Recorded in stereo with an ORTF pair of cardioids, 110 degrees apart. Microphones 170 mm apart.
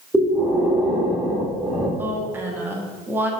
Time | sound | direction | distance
0.1 | breathing | straight ahead | 1.3 m
2.0 | a woman speaking | 10° right | 0.9 m